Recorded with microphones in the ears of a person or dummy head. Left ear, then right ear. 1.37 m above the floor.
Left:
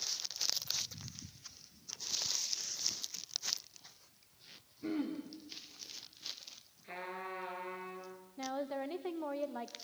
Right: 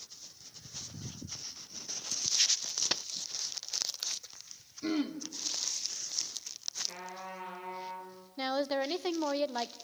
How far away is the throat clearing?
About 2.5 m.